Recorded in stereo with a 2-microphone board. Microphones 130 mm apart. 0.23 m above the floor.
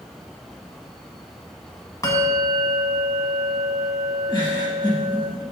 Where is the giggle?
35° left (ahead or behind), 2.5 m.